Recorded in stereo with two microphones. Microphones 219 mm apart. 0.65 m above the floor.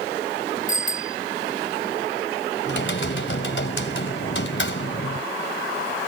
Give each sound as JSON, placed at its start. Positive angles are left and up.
{"t": 0.7, "sound": "a bicycle bell", "side_deg": 40}
{"t": 2.6, "sound": "typing on a keyboard", "side_deg": 60}